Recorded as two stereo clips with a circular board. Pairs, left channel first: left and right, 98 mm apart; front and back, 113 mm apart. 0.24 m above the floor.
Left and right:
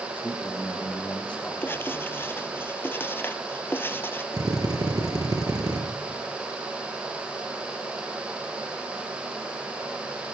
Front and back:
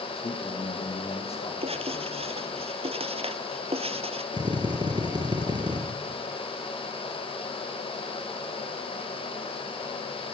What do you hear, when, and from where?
0.2 s a man speaking: 15° left, 8.5 m
1.6 s writing: 155° left, 1.3 m
4.3 s a drill: 135° right, 5 m